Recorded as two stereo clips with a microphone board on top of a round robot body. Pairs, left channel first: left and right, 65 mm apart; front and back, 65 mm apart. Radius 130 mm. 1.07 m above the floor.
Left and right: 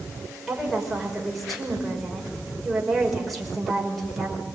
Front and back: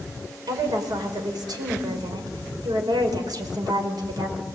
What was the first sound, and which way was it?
A woman speaking, straight behind.